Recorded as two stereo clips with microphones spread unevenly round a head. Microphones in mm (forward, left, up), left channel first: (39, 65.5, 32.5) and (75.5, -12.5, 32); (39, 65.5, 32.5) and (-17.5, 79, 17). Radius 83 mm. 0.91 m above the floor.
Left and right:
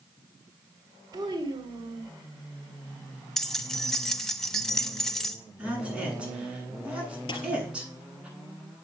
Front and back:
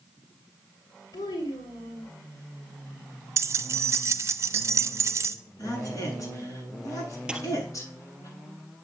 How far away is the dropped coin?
About 3 m.